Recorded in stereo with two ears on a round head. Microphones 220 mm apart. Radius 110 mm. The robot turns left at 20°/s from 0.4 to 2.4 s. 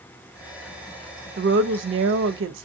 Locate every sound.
1.4 s a woman speaking: 50° right (ahead or behind), 0.6 m; by 2.7 s 55° right (ahead or behind), 0.6 m